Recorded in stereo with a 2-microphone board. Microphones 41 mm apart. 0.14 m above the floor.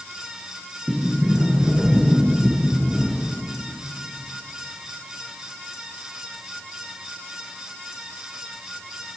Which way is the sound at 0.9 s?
20° right (ahead or behind).